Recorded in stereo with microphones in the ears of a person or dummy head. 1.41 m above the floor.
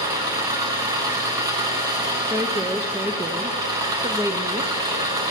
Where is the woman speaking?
10° right (ahead or behind), 0.6 m.